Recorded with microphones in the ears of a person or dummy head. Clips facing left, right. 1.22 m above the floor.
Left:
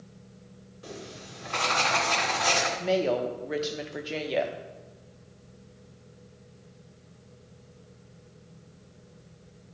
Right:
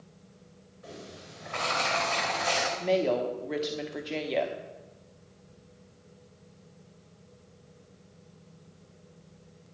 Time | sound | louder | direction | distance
0.8 | writing | left 3 dB | 45° left (ahead or behind) | 2 m
2.8 | a woman speaking | even | centre (ahead or behind) | 1.0 m